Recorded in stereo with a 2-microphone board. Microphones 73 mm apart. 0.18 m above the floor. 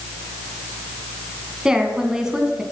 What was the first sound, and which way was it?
A woman speaking, 10° right (ahead or behind).